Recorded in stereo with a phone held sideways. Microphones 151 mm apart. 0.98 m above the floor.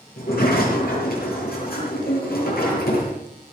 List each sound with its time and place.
0.2 s a sliding door: 75° left (ahead or behind), 7 m